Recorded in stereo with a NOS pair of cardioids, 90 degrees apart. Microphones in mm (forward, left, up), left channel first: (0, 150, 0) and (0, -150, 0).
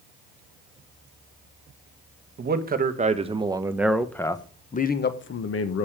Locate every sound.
2.4 s a man speaking: 35° right, 1.6 m; by 5.8 s 55° left, 1.3 m